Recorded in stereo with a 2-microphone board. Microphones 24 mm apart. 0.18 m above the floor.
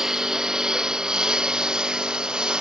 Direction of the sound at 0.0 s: 20° right (ahead or behind).